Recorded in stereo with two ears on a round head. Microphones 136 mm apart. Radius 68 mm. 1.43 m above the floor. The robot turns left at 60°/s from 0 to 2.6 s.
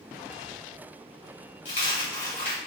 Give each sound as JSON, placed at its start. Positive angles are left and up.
{"t": 1.6, "sound": "a dropped coin", "azimuth_deg": 65, "distance_m": 1.6}